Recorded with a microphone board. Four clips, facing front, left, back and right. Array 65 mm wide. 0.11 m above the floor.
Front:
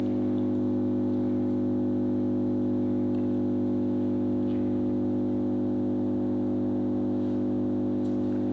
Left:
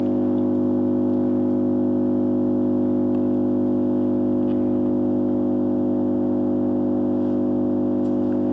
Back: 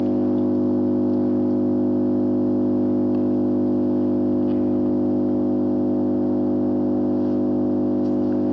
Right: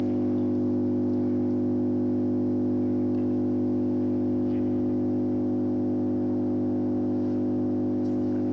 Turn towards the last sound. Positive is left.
turn(degrees=135)